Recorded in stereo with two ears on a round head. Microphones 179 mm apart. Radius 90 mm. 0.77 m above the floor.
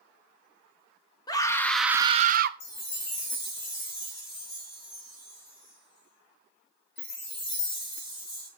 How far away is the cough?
I don't hear a cough.